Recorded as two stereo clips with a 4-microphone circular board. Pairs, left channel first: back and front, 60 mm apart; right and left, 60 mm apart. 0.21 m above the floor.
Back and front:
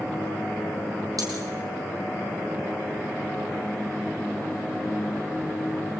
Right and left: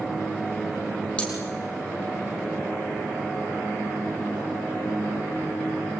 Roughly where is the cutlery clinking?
Ahead.